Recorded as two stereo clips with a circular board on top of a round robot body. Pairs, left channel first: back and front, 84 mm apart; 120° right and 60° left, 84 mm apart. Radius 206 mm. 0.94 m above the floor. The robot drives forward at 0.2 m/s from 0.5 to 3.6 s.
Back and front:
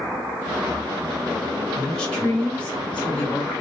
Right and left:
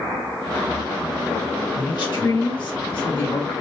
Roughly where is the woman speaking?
Right.